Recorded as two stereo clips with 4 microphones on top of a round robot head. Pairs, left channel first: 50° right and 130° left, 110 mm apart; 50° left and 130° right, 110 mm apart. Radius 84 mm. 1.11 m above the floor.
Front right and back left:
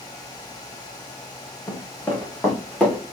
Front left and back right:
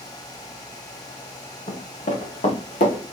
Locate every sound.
1.7 s running footsteps: 15° left, 3.5 m; by 3.0 s 30° left, 5 m